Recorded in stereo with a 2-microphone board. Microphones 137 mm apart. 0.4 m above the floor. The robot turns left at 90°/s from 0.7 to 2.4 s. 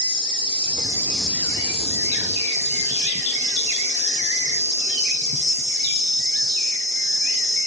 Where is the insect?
135° right, 0.9 m; by 7.7 s 75° left, 0.9 m.